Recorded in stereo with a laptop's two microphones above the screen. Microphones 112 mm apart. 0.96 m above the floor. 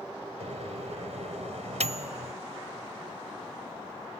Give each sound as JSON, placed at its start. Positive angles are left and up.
{"t": 0.4, "sound": "a microwave", "side_deg": -85}